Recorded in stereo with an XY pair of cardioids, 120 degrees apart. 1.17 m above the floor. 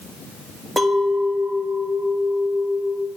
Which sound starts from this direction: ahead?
A clink, at 0.8 s.